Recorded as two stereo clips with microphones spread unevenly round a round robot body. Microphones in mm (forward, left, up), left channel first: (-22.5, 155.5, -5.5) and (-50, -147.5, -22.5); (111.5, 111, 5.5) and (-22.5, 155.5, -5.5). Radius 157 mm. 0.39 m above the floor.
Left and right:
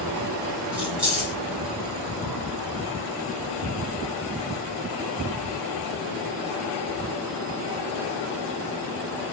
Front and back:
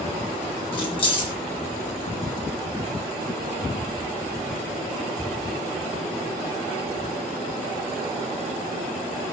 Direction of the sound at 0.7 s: 15° right.